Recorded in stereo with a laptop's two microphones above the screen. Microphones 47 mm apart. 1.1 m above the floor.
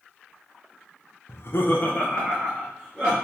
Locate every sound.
1.3 s laughter: 55° left (ahead or behind), 0.7 m; by 3.1 s 5° left (ahead or behind), 2 m